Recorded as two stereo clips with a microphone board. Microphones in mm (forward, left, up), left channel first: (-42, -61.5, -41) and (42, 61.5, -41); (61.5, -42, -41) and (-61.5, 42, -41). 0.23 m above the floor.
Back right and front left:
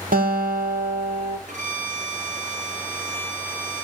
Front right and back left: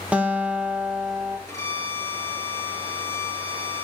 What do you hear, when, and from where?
0.1 s a guitar: 65° left, 1.8 m
1.5 s a violin: 35° left, 2 m